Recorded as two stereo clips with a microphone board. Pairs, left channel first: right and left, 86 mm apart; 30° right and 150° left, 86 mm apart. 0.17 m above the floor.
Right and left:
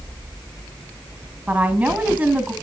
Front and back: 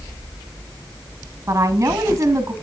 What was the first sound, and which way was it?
A woman speaking, 145° left.